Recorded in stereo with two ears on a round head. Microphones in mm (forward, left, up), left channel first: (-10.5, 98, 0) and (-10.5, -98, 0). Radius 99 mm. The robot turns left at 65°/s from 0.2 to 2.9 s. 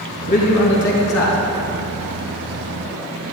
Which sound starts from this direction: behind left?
A man speaking, at 0.3 s.